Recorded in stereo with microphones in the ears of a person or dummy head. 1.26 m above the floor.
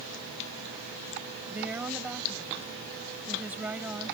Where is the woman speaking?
10° right (ahead or behind).